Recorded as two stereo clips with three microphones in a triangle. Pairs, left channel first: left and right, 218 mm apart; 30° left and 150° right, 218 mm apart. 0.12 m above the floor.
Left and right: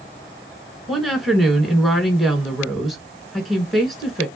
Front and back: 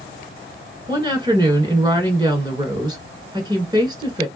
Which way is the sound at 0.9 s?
Straight behind.